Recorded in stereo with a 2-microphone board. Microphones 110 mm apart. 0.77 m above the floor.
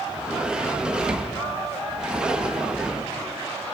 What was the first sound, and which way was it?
A sliding door, 5° right (ahead or behind).